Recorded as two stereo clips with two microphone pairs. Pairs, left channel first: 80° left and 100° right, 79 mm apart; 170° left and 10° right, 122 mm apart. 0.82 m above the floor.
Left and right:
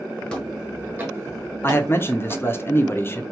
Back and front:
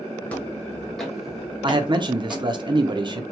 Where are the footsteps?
115° left, 0.8 m; by 2.5 s 90° right, 1.5 m.